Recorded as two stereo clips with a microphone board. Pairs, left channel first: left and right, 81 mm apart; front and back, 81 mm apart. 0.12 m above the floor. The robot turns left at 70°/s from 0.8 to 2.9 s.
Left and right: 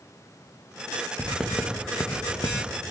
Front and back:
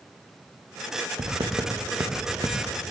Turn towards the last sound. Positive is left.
turn(degrees=75)